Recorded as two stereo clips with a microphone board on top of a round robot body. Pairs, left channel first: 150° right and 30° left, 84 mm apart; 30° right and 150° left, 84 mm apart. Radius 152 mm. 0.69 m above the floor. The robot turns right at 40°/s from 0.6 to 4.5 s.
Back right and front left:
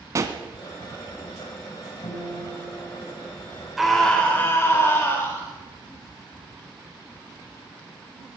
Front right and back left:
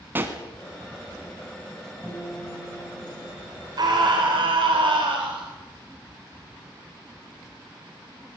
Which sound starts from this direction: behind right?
A guitar, at 2.0 s.